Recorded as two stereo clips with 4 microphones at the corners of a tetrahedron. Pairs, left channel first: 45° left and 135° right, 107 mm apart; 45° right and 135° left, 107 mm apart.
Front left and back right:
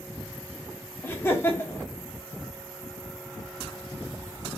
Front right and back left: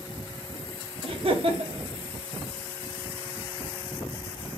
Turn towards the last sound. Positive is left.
turn(degrees=110)